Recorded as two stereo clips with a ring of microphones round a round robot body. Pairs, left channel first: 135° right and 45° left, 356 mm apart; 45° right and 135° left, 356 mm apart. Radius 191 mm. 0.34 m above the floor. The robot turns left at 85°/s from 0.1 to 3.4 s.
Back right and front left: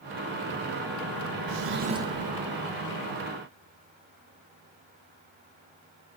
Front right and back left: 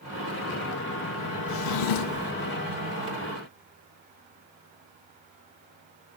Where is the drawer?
10° left, 0.5 m; by 2.3 s 60° right, 0.5 m.